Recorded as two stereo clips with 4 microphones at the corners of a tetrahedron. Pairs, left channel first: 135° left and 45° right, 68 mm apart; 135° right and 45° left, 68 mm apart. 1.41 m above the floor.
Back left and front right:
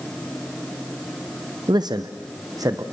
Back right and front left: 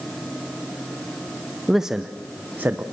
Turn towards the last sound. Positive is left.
turn(degrees=-15)